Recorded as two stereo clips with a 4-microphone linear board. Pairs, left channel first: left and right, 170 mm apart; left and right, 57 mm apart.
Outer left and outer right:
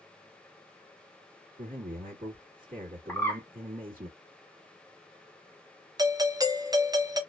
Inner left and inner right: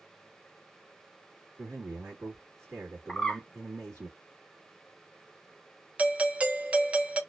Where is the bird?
10° left (ahead or behind), 0.8 m.